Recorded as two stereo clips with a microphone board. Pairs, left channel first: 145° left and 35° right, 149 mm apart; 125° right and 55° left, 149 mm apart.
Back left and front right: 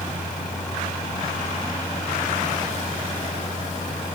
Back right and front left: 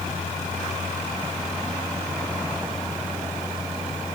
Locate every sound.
Only background noise.